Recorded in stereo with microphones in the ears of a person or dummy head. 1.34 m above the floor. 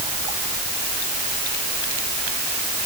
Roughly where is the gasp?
I don't hear a gasp.